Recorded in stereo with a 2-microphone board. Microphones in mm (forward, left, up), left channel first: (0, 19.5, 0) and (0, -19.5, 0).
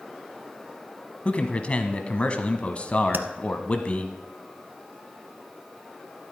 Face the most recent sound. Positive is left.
turn(degrees=-65)  # may be behind; listen again after turning